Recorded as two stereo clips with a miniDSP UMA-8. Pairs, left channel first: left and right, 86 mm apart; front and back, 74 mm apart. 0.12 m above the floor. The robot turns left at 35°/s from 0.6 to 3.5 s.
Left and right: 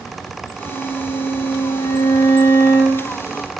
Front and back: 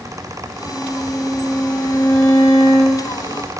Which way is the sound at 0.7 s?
115° left.